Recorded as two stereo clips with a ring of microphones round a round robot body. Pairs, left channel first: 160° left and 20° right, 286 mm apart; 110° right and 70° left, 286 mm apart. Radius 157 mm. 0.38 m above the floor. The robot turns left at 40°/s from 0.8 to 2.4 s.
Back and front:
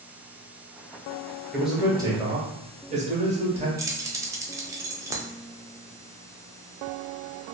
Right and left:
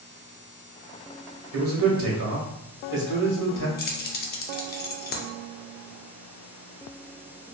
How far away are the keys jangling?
About 0.5 m.